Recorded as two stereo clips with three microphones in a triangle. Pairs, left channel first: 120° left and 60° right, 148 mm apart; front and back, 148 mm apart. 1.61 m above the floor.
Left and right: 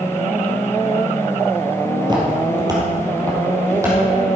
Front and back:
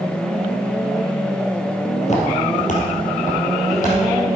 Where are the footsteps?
10° right, 2.5 m; by 4.0 s 10° left, 4 m.